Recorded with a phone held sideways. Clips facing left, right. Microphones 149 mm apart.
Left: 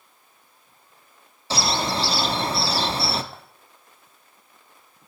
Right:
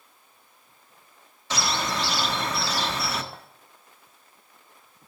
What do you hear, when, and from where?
1.5 s a bird: 30° left (ahead or behind), 0.7 m
3.3 s a clink: 5° left (ahead or behind), 1.2 m